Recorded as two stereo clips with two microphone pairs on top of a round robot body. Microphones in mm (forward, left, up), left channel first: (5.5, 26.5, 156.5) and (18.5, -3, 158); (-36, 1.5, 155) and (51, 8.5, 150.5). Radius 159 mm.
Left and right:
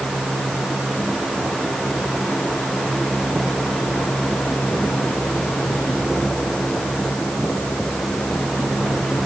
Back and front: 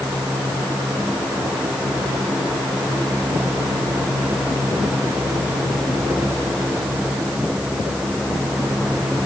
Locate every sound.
Only background noise.